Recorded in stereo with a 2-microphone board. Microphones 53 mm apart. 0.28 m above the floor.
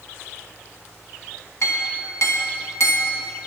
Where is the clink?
60° left (ahead or behind), 1.2 m.